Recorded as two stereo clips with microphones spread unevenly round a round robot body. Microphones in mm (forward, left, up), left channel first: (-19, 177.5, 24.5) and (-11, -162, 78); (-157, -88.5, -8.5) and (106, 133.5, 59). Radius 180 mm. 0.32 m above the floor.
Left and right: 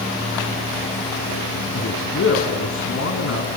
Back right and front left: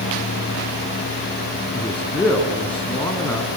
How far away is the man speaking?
About 3 m.